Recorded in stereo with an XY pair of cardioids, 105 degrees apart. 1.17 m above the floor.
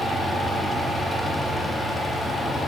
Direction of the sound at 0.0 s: Straight ahead.